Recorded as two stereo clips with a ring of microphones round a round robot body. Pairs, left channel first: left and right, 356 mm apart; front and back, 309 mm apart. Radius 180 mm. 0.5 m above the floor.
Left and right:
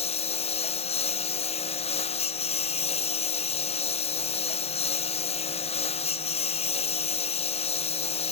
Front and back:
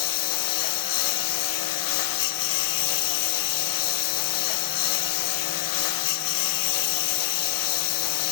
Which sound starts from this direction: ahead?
A lawn mower, at 0.0 s.